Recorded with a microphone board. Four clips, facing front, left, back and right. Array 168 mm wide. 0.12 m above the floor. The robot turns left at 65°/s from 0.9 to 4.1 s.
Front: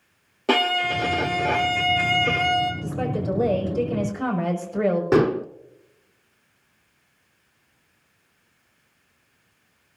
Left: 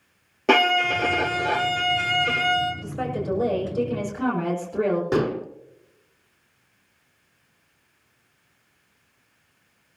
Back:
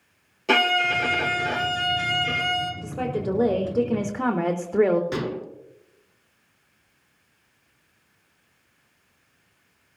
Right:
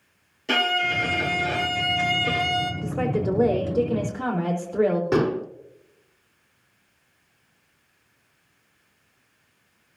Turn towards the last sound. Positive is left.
turn(degrees=-10)